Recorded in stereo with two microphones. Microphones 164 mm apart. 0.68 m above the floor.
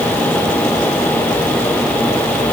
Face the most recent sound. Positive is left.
No sound to turn to.